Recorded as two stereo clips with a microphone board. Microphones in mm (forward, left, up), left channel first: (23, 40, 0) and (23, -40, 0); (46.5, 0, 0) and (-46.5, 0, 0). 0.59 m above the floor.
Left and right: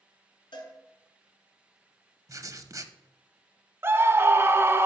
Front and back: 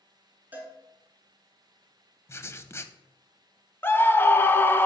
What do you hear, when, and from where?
0.5 s a cowbell: 110° left, 2 m
2.3 s writing: 55° right, 0.6 m
3.8 s a scream: 50° right, 0.7 m